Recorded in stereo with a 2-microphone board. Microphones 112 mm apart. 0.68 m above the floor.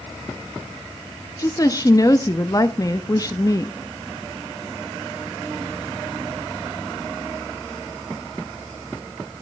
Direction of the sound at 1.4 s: 30° left (ahead or behind).